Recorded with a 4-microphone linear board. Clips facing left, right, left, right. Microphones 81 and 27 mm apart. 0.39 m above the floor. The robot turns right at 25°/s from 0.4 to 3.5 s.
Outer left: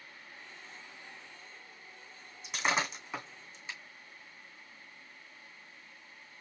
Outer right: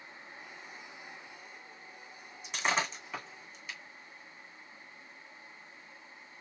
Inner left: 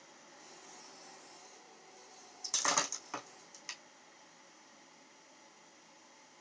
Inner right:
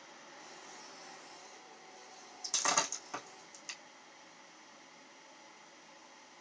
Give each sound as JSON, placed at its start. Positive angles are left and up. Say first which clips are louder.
{"t": 2.4, "sound": "breaking glass", "louder": "even, inner right 1 dB", "side_deg": 0, "distance_m": 2.5}